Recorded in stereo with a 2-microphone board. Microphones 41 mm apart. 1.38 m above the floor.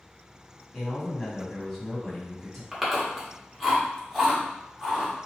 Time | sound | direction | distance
0.7 | a man speaking | centre (ahead or behind) | 1.7 m
2.7 | chewing | 5° right (ahead or behind) | 1.1 m